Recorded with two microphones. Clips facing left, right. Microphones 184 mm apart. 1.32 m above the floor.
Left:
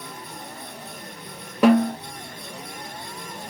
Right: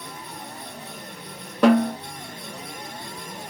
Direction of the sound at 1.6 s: 5° left (ahead or behind).